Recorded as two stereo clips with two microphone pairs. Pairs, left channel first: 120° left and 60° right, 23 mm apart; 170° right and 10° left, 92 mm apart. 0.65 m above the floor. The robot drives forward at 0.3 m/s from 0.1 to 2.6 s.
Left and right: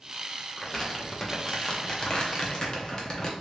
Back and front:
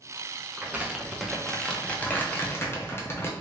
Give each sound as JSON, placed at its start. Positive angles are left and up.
{"t": 0.6, "sound": "crumpling", "azimuth_deg": 55, "distance_m": 0.7}